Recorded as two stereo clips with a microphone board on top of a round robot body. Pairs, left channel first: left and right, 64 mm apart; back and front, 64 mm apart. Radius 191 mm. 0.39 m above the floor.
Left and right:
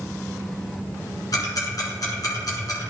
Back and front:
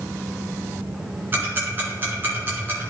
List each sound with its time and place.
1.3 s ticking: 60° left, 1.9 m